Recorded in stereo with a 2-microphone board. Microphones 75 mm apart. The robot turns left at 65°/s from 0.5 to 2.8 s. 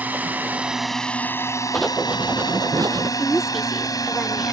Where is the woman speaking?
5° right (ahead or behind).